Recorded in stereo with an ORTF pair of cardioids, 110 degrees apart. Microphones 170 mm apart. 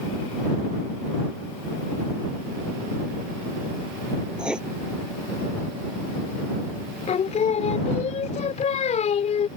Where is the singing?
40° left.